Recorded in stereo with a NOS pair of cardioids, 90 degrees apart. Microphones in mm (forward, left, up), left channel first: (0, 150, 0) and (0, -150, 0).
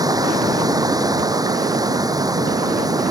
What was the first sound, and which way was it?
Running water, 10° right.